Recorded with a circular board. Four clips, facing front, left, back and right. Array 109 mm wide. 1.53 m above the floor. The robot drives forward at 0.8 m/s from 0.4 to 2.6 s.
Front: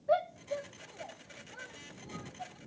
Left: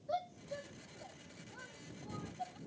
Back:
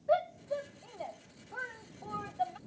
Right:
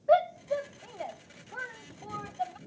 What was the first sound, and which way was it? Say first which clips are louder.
A shout: right 16 dB, even; 90° right.